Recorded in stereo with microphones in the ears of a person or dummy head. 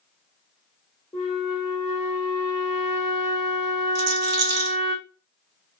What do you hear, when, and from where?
1.1 s a flute: centre (ahead or behind), 1.7 m
4.0 s a rattle: 55° right (ahead or behind), 0.8 m